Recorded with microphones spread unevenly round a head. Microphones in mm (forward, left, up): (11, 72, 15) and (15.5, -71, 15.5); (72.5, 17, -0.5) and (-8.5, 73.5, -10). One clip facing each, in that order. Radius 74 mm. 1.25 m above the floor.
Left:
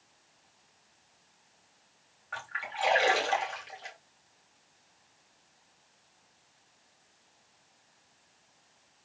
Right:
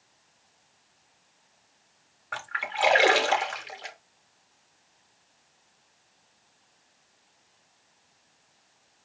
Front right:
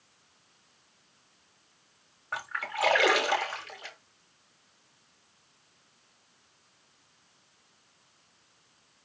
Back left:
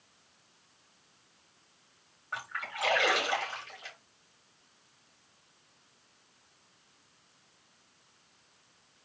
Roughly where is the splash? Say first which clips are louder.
Right 5 dB, front right 4 dB; right.